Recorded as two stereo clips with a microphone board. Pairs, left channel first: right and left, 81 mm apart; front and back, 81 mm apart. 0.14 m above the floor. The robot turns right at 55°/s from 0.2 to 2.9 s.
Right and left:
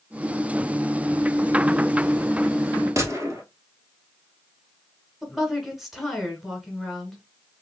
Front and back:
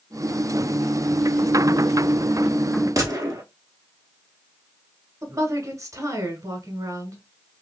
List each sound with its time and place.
3.0 s a gunshot: 135° left, 0.9 m
5.2 s a woman speaking: 175° left, 1.3 m